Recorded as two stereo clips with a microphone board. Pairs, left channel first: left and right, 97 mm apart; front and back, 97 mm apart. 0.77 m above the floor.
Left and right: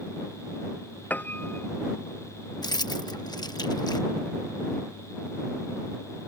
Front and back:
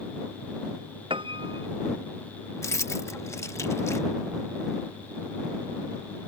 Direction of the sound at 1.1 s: 160° left.